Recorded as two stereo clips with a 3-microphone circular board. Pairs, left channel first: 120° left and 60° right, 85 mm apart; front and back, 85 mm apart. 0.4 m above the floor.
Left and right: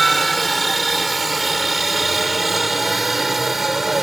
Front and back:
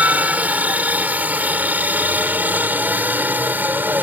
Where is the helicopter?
150° right; by 4.0 s 145° right.